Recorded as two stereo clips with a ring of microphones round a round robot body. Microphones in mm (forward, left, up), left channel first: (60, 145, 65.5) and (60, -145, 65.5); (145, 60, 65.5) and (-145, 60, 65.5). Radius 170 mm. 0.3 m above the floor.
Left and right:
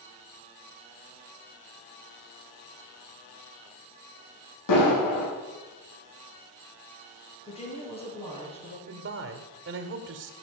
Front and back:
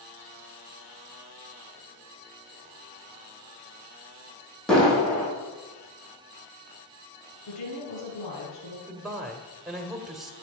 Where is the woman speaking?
20° left, 6 m.